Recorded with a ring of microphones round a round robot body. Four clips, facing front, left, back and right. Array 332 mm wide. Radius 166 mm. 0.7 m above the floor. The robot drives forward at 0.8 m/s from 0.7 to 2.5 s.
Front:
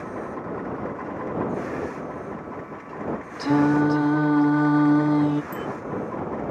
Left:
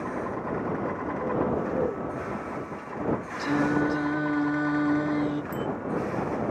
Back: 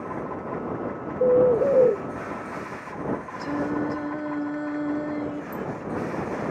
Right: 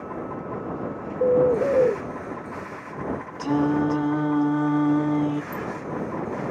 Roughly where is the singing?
Ahead.